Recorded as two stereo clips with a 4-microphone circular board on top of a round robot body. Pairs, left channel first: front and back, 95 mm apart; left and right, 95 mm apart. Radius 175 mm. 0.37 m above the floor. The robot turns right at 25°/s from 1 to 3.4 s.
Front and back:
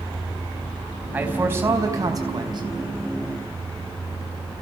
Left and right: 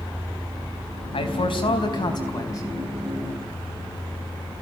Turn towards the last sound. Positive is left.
turn(degrees=160)